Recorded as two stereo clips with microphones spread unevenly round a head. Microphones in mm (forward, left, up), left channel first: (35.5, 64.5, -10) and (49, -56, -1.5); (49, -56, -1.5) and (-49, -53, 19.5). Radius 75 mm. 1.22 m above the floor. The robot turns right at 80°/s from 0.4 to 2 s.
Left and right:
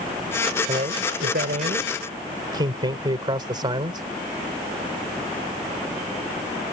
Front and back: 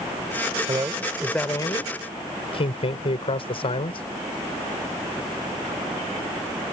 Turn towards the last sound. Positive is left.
turn(degrees=-30)